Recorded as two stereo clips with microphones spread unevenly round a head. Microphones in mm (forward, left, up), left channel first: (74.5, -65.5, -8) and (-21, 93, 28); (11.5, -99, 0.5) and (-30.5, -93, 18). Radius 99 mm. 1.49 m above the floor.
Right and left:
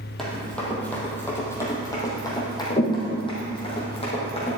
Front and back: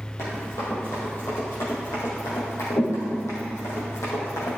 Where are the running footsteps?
35° left, 3 m; by 4.6 s straight ahead, 4 m.